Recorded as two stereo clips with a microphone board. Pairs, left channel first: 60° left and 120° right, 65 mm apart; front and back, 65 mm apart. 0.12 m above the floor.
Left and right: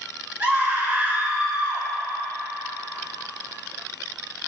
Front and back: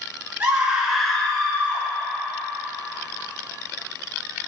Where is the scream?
155° right, 1.7 m; by 1.9 s 50° right, 2 m.